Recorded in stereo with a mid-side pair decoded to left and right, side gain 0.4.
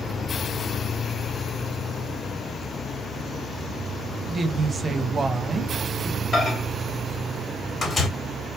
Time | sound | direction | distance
4.3 | a woman speaking | 40° right | 1.5 m
6.3 | a microwave | 40° left | 3 m